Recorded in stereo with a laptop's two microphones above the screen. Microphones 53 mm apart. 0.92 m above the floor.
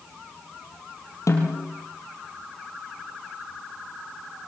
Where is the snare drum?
80° left, 4.5 m.